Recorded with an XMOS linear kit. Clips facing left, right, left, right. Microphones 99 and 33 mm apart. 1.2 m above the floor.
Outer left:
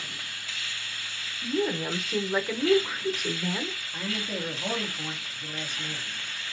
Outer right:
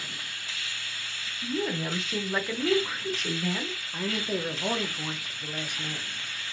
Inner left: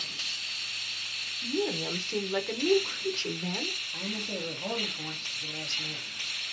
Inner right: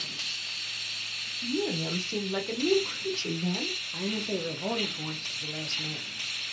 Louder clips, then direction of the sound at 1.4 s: Outer left 2 dB, even; 5° left (ahead or behind).